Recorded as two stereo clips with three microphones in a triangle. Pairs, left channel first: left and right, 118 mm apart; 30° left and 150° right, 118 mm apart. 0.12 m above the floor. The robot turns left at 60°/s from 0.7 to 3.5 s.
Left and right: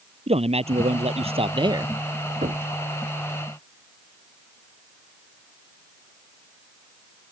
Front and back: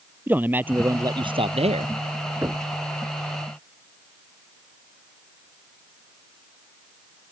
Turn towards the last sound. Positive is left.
turn(degrees=-150)